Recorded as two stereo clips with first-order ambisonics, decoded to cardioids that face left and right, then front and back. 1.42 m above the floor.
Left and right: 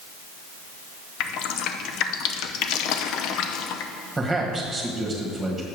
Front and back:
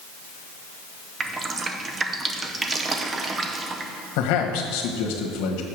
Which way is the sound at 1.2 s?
110° left.